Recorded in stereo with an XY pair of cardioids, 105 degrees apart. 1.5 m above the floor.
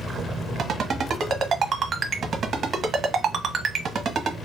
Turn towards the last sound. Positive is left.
turn(degrees=-50)